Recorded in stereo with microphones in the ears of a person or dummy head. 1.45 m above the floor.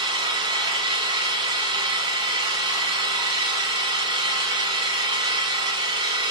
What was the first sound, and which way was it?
An engine running, 20° right (ahead or behind).